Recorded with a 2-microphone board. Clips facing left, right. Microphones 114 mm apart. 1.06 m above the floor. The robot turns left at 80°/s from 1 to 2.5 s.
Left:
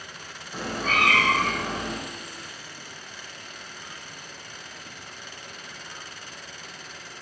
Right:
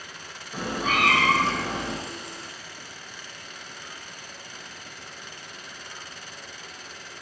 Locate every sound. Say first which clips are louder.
0.5 s a cat meowing: right 1 dB; 170° right, 1.5 m; by 1.9 s 115° left, 1.5 m